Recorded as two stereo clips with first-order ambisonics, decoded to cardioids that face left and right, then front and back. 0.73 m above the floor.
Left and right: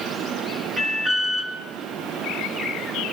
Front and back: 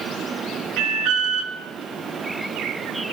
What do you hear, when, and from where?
0.8 s an alarm: 165° right, 6.5 m